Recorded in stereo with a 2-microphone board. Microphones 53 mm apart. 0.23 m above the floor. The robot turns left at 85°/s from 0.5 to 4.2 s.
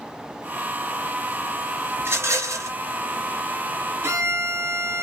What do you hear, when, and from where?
2.0 s a rattle: 45° right, 1.6 m; by 2.7 s 105° right, 1.6 m
4.0 s a violin: 55° right (ahead or behind), 1.1 m; by 5.0 s 50° right (ahead or behind), 1.1 m